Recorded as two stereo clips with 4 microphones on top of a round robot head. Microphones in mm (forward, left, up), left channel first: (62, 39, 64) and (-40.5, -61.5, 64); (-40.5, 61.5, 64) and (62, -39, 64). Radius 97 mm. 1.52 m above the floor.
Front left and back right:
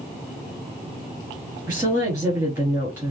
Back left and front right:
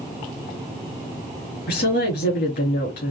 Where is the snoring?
No snoring in this recording.